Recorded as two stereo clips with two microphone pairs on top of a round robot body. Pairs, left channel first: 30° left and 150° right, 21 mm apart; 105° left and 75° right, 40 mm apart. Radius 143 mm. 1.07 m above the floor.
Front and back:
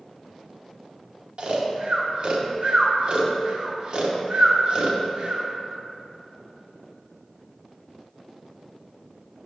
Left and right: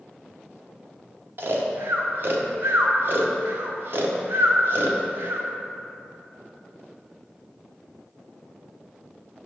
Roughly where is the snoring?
Right.